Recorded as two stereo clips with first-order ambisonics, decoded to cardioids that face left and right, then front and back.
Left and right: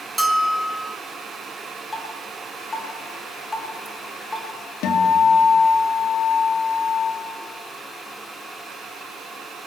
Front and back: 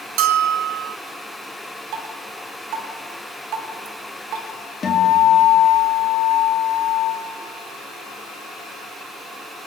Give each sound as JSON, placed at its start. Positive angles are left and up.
{"t": 0.2, "sound": "a bell", "azimuth_deg": -175, "distance_m": 1.2}
{"t": 1.9, "sound": "dripping", "azimuth_deg": 165, "distance_m": 1.8}
{"t": 4.8, "sound": "a guitar", "azimuth_deg": 65, "distance_m": 1.9}